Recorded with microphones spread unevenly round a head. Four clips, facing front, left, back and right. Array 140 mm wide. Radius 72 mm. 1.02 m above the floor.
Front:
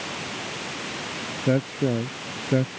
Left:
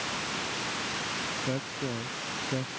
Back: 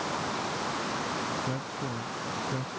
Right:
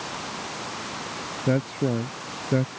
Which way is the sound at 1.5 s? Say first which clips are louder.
Right 12 dB, front 11 dB; 25° right.